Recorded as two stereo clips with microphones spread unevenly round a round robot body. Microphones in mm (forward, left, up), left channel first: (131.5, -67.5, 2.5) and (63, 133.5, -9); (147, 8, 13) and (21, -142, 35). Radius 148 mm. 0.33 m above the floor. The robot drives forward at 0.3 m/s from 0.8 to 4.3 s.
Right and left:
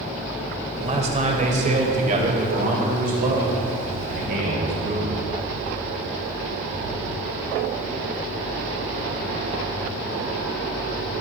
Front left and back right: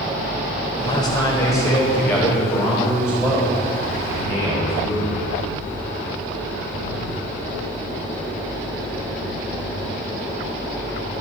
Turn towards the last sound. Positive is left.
turn(degrees=150)